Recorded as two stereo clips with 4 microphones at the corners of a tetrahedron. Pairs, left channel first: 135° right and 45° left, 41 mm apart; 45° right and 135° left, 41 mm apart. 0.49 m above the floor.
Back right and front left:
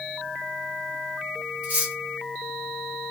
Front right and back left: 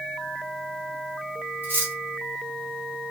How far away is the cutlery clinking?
About 1.4 m.